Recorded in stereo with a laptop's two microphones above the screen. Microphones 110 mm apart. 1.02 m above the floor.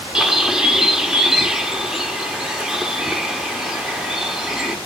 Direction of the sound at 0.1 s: 5° right (ahead or behind).